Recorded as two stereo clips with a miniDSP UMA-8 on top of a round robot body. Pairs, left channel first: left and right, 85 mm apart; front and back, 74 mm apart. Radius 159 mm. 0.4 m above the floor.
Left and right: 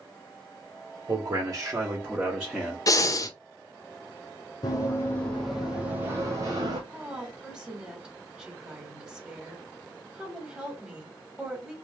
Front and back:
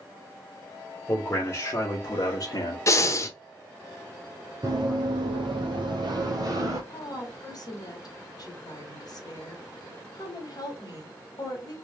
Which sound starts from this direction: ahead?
A woman speaking, at 6.9 s.